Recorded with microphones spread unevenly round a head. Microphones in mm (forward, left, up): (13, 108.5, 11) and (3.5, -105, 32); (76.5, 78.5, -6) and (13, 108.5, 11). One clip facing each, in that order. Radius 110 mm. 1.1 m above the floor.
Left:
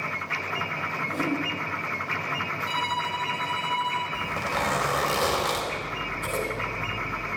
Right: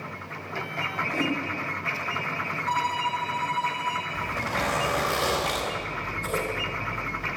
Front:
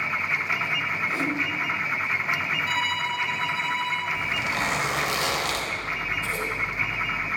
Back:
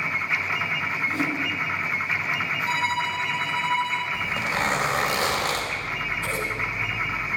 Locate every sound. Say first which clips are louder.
1.1 s a whoosh: even, back 1 dB; 30° left, 2.5 m
2.7 s a violin: right 1 dB, back 2 dB; 100° left, 5 m
4.1 s a zipper: even, back 1 dB; 105° left, 4 m
5.7 s scissors: even, even; 130° left, 4.5 m